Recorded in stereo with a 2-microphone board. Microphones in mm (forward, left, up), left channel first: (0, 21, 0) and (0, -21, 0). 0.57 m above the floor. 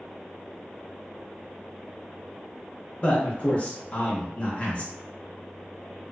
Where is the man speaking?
30° left (ahead or behind), 0.9 m.